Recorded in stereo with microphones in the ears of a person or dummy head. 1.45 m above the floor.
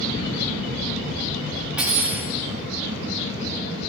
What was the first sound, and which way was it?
Cutlery clinking, 10° right (ahead or behind).